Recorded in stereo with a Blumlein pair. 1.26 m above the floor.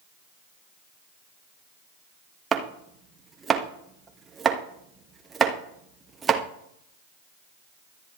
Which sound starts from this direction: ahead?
Chopping, at 2.5 s.